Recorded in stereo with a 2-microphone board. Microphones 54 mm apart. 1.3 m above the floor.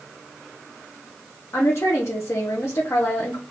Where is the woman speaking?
55° left (ahead or behind), 0.9 m.